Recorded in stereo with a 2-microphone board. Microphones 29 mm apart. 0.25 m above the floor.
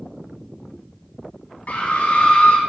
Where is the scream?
50° left (ahead or behind), 1.9 m.